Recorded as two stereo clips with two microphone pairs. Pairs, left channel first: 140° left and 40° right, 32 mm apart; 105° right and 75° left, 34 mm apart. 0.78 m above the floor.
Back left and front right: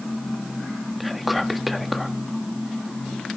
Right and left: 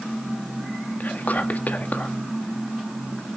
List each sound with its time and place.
1.0 s whispering: 130° right, 1.4 m